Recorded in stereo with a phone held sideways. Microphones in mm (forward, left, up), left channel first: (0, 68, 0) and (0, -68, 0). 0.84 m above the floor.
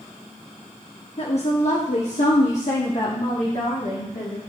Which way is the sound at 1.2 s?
50° left (ahead or behind).